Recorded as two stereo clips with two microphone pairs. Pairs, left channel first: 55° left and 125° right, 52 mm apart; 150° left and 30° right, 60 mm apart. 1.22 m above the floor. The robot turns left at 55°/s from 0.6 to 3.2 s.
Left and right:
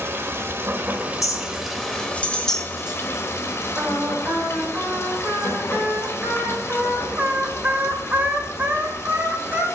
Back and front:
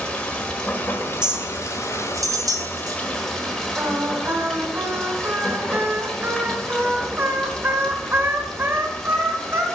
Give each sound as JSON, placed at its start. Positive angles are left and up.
{"t": 0.0, "sound": "running water", "azimuth_deg": -140, "distance_m": 1.5}
{"t": 1.2, "sound": "a clink", "azimuth_deg": 50, "distance_m": 0.9}
{"t": 3.8, "sound": "singing", "azimuth_deg": -75, "distance_m": 1.6}